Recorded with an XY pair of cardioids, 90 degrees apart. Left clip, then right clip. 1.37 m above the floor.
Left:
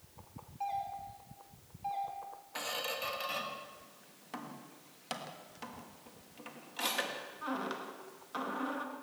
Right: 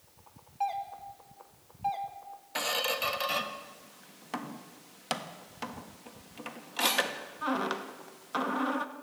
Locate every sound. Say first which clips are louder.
0.6 s a doorbell: right 4 dB; 55° right, 3 m
2.5 s a squeak: right 7 dB; 55° right, 1.6 m